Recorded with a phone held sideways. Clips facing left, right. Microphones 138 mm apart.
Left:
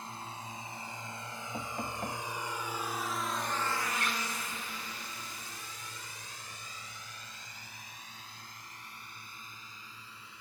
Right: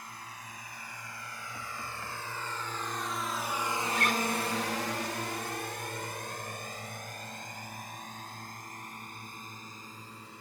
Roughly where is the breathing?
I don't hear breathing.